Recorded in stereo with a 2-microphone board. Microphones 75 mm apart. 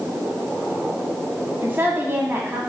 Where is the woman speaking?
30° right (ahead or behind), 1.0 m.